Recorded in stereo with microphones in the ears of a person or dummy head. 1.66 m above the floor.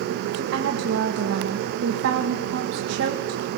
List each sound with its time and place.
0.3 s a woman speaking: 80° right, 1.8 m